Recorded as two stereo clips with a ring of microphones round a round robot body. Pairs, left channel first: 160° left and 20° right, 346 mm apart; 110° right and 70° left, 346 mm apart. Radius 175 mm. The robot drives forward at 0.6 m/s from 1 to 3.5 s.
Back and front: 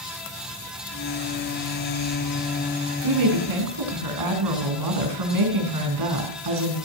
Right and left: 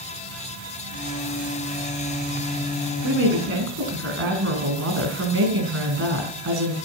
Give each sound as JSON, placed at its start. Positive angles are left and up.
{"t": 3.0, "sound": "a woman speaking", "azimuth_deg": 10, "distance_m": 4.5}